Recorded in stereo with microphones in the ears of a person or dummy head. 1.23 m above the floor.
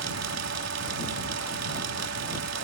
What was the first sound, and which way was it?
A fan, 70° right (ahead or behind).